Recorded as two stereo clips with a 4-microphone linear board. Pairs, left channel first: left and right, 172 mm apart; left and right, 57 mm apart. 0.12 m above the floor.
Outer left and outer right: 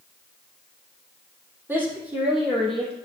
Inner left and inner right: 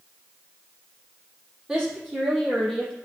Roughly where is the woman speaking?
Centre.